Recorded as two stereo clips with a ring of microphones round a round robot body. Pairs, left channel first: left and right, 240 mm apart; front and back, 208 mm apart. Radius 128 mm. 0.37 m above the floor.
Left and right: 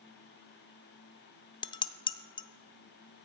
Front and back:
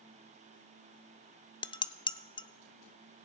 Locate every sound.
1.6 s dishes clattering: 40° left, 0.7 m